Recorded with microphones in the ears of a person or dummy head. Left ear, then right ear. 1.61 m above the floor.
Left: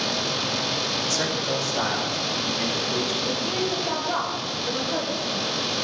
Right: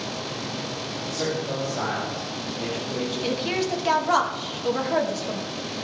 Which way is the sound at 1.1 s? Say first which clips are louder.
Left 3 dB; 80° left.